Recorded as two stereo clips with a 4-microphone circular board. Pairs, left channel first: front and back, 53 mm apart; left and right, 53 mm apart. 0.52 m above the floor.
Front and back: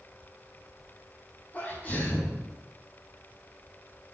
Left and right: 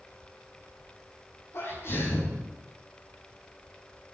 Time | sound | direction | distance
1.5 | a sneeze | 60° left | 4.5 m